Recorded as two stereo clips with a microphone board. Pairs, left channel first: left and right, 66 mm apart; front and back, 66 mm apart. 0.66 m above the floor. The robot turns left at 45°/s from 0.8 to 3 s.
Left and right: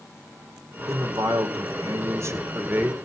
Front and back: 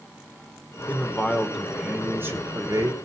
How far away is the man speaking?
About 2 m.